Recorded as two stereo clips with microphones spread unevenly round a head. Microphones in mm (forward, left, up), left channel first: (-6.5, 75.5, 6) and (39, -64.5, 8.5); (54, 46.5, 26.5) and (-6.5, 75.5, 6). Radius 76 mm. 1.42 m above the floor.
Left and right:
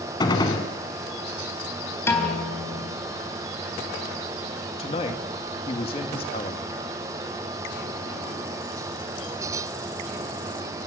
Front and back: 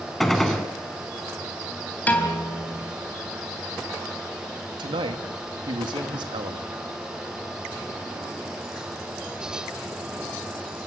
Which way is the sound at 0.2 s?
50° left.